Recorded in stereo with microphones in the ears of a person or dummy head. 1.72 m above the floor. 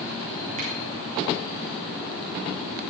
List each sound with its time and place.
0.6 s a finger snap: 40° right (ahead or behind), 5.5 m